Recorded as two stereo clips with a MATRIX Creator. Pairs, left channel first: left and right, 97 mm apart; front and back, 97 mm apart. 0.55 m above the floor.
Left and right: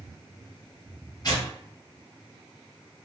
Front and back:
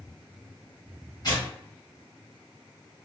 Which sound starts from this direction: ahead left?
Tearing paper, at 1.2 s.